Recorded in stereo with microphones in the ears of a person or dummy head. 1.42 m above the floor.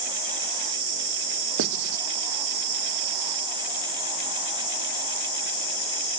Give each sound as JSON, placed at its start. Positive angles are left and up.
{"t": 1.6, "sound": "writing", "side_deg": -65, "distance_m": 1.0}